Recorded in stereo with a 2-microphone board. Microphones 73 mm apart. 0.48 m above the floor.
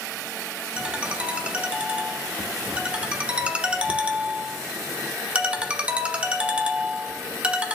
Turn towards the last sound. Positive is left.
turn(degrees=-15)  # may be behind; listen again after turning